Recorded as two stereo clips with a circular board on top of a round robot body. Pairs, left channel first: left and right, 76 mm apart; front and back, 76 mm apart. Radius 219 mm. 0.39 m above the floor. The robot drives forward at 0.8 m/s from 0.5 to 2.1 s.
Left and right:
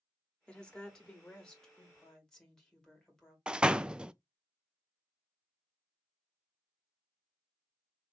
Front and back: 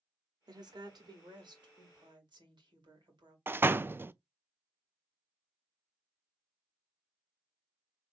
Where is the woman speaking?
165° left, 1.4 m; by 3.4 s 175° left, 2.5 m.